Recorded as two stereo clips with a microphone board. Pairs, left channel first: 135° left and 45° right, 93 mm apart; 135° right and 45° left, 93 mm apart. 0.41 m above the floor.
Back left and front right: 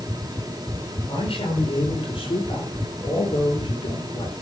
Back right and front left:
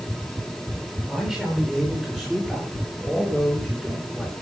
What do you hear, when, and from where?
1.1 s a man speaking: 130° left, 9.5 m; by 4.3 s 135° left, 5.5 m